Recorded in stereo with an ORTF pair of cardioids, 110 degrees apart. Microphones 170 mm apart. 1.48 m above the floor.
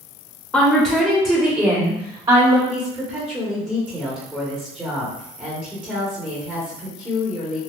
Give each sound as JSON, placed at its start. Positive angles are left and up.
{"t": 0.5, "sound": "a woman speaking", "azimuth_deg": 5, "distance_m": 1.3}
{"t": 2.7, "sound": "a woman speaking", "azimuth_deg": -10, "distance_m": 1.4}